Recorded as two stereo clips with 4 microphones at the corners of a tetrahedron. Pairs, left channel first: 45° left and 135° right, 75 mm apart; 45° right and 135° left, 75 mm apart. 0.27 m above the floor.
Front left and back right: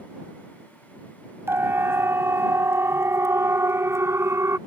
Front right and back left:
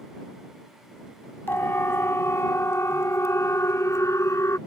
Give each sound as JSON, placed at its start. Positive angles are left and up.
{"t": 1.5, "sound": "a siren", "azimuth_deg": -90}